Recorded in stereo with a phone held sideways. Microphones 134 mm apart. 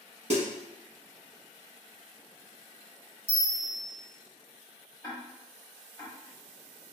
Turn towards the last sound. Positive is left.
turn(degrees=25)  # may be behind; listen again after turning